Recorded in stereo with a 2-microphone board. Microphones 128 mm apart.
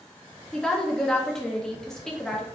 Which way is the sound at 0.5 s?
5° left (ahead or behind).